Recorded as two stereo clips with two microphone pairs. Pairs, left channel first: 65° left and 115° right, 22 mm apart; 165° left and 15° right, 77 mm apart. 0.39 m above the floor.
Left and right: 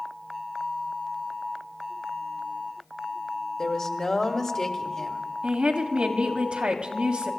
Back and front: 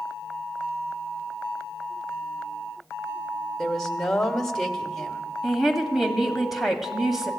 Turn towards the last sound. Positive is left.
turn(degrees=-100)